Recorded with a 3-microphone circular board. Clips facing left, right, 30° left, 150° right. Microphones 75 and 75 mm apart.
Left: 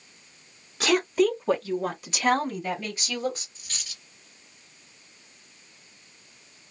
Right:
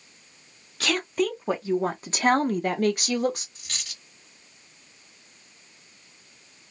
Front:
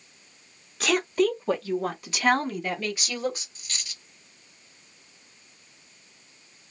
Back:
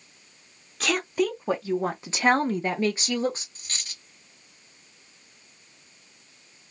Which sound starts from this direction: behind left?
A woman speaking, at 0.8 s.